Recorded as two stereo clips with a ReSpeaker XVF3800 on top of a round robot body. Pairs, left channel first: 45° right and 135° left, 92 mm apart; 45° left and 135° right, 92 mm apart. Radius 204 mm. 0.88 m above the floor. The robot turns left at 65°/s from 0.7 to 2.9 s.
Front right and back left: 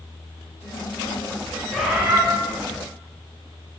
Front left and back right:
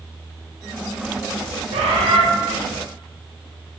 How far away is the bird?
About 1.0 m.